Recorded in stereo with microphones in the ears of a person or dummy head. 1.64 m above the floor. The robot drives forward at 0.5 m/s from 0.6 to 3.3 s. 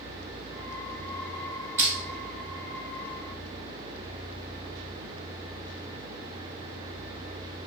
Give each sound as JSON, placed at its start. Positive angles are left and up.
{"t": 1.8, "sound": "crushing", "side_deg": -15, "distance_m": 1.3}